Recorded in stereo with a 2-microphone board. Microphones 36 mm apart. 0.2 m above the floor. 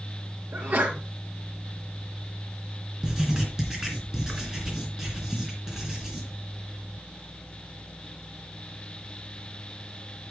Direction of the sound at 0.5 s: 65° right (ahead or behind).